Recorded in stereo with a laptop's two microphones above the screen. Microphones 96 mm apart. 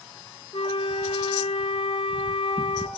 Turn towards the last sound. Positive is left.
turn(degrees=65)  # may be behind; listen again after turning